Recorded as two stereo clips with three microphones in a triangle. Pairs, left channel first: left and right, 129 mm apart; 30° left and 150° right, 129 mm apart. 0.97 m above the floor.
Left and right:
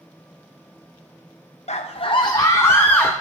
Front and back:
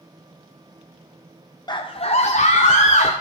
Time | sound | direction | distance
1.7 | a scream | 80° left | 0.5 m